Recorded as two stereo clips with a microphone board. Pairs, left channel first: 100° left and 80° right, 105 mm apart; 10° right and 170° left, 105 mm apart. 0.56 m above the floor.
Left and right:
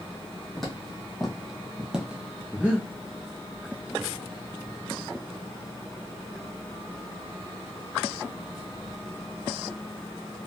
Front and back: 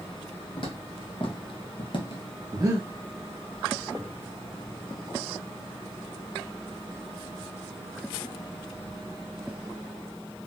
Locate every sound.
0.6 s footsteps: 15° left, 1.6 m; by 2.2 s 5° right, 0.8 m
2.5 s breathing: 150° right, 0.7 m